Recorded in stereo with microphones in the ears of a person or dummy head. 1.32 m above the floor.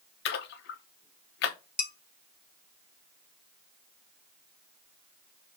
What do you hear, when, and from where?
0.2 s a splash: 75° left (ahead or behind), 0.9 m
1.8 s dishes clattering: 15° left (ahead or behind), 2.5 m